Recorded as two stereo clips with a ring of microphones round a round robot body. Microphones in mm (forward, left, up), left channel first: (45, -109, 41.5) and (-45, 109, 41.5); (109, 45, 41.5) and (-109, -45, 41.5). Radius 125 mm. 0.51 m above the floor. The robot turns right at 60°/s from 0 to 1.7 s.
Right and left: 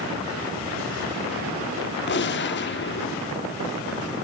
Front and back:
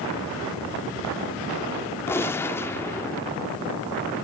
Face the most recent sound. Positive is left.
turn(degrees=-55)